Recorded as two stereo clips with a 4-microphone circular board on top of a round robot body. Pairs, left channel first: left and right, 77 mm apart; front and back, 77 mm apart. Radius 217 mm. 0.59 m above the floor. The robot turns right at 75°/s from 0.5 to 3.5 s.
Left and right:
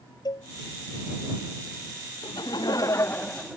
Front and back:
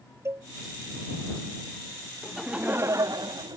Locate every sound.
0.2 s a cowbell: 125° left
2.2 s laughter: 80° left; by 3.6 s straight behind